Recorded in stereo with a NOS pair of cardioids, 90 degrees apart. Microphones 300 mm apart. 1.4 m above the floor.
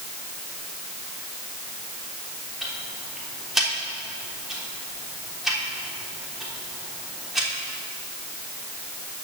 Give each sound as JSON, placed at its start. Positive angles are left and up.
{"t": 2.6, "sound": "ticking", "azimuth_deg": 0, "distance_m": 3.5}